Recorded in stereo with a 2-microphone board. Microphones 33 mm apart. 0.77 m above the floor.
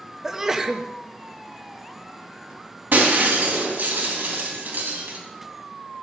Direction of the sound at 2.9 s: 75° right (ahead or behind).